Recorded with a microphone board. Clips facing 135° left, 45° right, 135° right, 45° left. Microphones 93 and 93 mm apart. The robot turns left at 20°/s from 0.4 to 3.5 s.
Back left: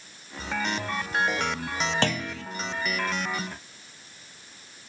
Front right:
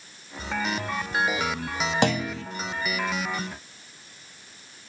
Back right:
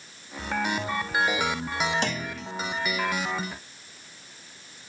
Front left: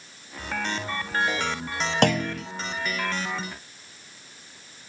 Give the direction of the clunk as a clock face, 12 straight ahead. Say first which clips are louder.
Front right 4 dB, front left 8 dB; 11 o'clock.